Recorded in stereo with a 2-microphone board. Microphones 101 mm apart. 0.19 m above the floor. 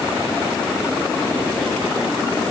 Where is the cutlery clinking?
I don't hear cutlery clinking.